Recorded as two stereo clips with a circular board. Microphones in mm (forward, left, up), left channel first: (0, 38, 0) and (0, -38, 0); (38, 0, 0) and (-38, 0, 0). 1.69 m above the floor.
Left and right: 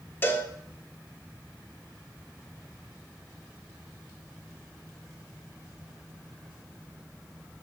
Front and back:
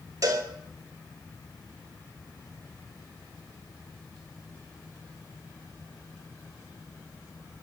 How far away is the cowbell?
About 2.5 m.